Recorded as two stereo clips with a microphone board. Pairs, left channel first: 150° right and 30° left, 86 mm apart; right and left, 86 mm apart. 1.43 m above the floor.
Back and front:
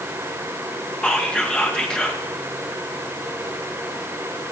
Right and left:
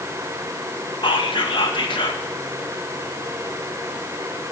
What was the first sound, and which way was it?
Whispering, 70° right.